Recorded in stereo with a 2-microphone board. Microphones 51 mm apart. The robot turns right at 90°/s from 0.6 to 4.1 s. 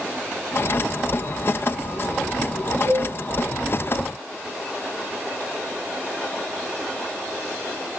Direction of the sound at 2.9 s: 65° right (ahead or behind).